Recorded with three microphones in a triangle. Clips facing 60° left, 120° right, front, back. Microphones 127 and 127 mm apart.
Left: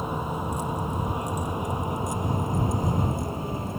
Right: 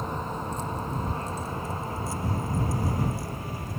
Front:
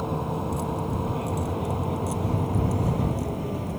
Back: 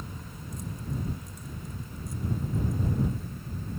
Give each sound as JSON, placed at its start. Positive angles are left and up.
{"t": 0.0, "sound": "a vehicle", "azimuth_deg": -20}